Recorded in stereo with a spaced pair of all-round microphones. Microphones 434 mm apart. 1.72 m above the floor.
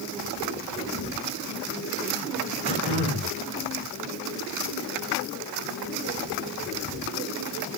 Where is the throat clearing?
55° left (ahead or behind), 8.5 m.